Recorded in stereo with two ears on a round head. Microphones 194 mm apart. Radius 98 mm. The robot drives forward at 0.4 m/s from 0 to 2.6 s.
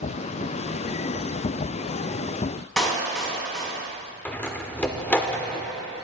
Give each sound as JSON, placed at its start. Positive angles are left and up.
{"t": 2.8, "sound": "a clap", "side_deg": 5, "distance_m": 3.5}
{"t": 4.2, "sound": "a door slam", "side_deg": 10, "distance_m": 0.9}